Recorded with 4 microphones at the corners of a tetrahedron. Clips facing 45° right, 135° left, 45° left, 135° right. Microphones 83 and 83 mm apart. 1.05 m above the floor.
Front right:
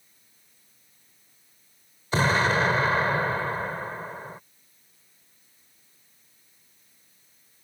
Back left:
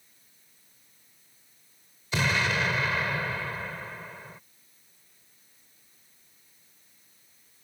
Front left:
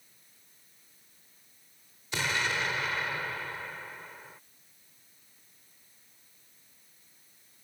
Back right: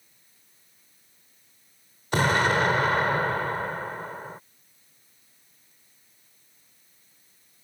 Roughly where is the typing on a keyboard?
No typing on a keyboard in this recording.